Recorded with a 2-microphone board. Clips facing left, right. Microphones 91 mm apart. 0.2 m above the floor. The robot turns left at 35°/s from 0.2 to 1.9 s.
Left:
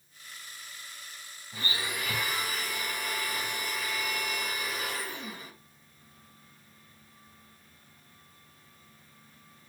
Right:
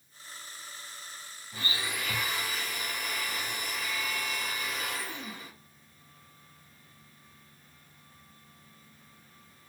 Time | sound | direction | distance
1.5 | a blender | 5° right (ahead or behind) | 3.5 m